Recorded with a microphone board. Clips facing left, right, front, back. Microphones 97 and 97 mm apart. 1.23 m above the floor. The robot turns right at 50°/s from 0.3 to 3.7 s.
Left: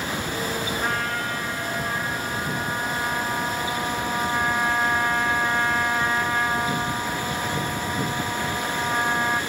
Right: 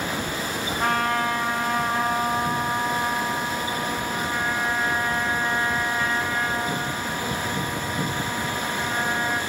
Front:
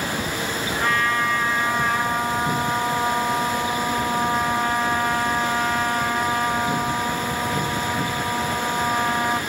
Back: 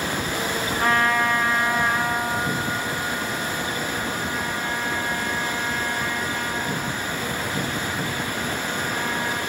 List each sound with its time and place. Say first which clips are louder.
0.8 s a trumpet: right 4 dB, back 2 dB; 125° right, 7 m; by 9.4 s 20° left, 7 m